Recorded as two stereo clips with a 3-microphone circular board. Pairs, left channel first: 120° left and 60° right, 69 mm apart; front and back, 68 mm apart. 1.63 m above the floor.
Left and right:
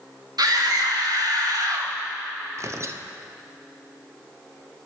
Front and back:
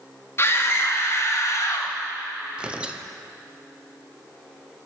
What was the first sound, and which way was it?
A scream, 50° right.